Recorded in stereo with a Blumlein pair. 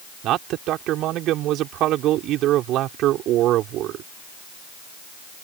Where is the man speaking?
35° right.